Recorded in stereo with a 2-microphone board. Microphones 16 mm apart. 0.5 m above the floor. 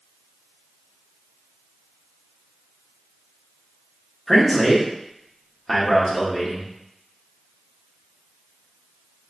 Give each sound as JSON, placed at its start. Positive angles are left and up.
{"t": 4.3, "sound": "a man speaking", "side_deg": 5, "distance_m": 1.1}